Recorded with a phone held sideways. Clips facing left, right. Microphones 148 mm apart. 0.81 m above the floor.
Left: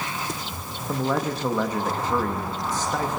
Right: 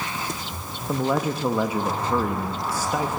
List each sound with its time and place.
0.9 s a man speaking: 10° right (ahead or behind), 0.9 m